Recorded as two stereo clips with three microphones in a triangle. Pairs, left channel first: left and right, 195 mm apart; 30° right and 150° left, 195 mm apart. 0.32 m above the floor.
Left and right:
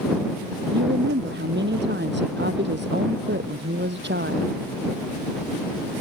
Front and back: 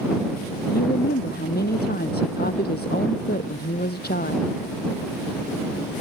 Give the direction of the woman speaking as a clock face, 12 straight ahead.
2 o'clock.